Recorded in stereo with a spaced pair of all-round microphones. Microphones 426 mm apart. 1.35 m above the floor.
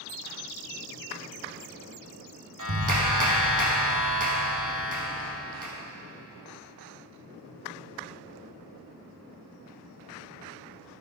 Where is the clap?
45° right (ahead or behind), 1.3 m.